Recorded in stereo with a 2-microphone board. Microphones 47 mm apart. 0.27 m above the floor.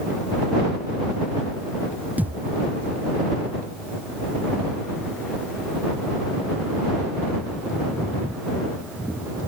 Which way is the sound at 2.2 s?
35° right (ahead or behind).